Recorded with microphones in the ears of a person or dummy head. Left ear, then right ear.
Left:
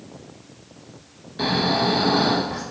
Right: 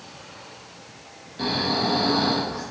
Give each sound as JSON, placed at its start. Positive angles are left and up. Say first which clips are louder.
{"t": 1.4, "sound": "snoring", "louder": "left 3 dB", "side_deg": 25, "distance_m": 1.1}